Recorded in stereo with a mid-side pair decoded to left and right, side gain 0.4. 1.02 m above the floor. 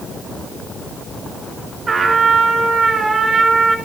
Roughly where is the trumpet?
Ahead right.